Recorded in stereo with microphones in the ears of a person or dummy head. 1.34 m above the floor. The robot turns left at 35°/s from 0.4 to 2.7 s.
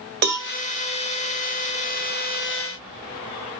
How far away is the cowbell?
About 0.7 m.